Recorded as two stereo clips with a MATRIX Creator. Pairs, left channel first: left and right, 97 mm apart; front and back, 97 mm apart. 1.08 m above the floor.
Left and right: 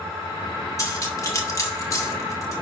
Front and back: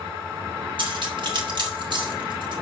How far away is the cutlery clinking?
About 2 m.